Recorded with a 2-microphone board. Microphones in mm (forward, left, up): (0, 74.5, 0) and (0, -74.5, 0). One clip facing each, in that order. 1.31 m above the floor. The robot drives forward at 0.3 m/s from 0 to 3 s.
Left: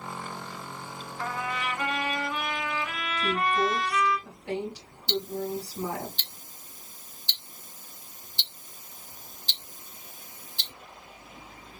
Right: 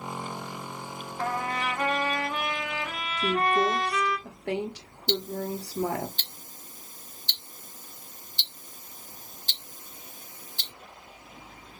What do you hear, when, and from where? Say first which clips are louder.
1.2 s a trumpet: right 3 dB; 40° right (ahead or behind), 1.0 m; by 4.2 s 35° right (ahead or behind), 1.2 m
3.2 s a woman speaking: right 2 dB; 70° right (ahead or behind), 0.9 m
5.1 s ticking: even; 50° right (ahead or behind), 0.8 m